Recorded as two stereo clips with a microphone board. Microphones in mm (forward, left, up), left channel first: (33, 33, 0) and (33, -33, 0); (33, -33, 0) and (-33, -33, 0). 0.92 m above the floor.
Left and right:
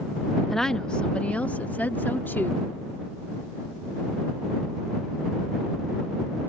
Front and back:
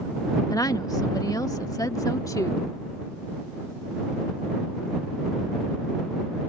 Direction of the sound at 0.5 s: 5° left.